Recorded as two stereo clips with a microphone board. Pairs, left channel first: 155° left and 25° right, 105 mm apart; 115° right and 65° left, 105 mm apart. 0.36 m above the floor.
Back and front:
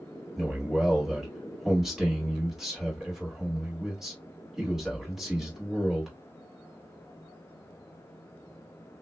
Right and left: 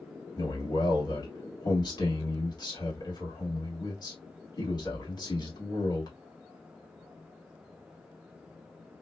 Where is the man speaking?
105° right, 1.5 m.